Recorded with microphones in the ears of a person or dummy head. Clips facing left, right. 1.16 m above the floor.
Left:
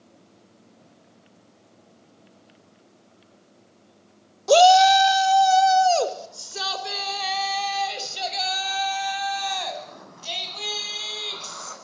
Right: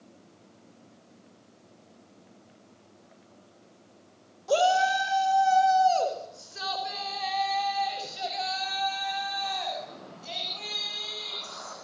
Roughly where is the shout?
Left.